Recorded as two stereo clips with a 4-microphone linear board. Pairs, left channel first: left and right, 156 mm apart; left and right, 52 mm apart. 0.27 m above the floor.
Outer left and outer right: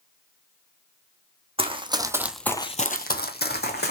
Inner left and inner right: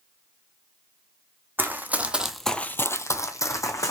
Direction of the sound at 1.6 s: 35° right (ahead or behind).